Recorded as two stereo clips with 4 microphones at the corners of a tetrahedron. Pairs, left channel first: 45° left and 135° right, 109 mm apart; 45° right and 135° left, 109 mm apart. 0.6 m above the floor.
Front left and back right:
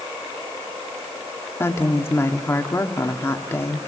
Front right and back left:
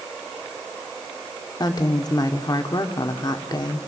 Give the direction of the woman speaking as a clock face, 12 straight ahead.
12 o'clock.